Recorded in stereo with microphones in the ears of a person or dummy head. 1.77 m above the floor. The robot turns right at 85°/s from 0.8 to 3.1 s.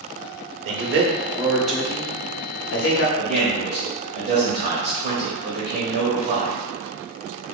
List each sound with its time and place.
0.7 s a man speaking: 70° right (ahead or behind), 0.9 m; by 3.1 s 60° left (ahead or behind), 0.9 m
3.2 s a man speaking: 50° right (ahead or behind), 1.0 m